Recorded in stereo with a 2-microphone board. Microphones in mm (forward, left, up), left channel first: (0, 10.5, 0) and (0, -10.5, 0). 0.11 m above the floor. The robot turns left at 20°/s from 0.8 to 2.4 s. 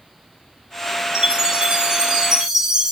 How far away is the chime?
About 2.5 m.